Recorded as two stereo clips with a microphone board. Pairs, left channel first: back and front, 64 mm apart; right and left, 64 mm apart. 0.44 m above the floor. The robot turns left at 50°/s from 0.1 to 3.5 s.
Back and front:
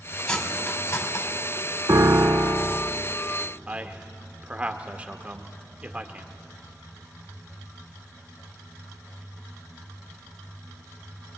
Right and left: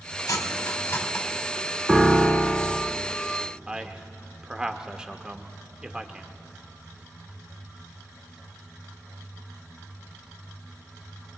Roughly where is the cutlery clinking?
Right.